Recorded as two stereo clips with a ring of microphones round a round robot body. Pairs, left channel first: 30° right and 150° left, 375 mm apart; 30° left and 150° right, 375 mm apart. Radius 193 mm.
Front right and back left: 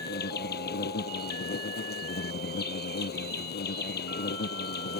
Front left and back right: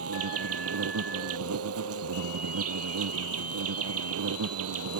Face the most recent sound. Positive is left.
turn(degrees=-95)